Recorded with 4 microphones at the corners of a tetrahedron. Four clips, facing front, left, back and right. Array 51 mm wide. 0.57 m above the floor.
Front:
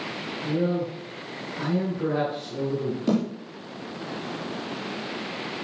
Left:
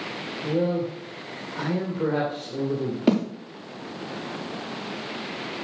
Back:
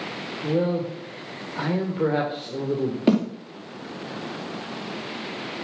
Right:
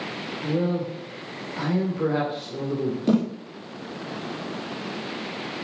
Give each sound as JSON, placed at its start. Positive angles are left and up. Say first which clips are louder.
{"t": 0.4, "sound": "a man speaking", "louder": "left 1 dB, back 2 dB", "azimuth_deg": 175, "distance_m": 2.5}
{"t": 3.1, "sound": "a snare drum", "louder": "even, back 4 dB", "azimuth_deg": 140, "distance_m": 5.0}